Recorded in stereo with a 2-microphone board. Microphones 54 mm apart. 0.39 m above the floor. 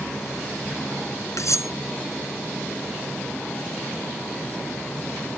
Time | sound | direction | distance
1.4 | cutlery clinking | 70° left (ahead or behind) | ?